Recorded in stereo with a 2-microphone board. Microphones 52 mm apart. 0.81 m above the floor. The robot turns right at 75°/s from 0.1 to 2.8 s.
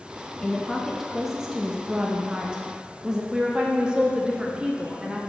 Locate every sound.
0.4 s a woman speaking: 10° left (ahead or behind), 0.6 m; by 3.2 s 10° right (ahead or behind), 0.6 m
3.3 s a woman speaking: 15° right (ahead or behind), 0.8 m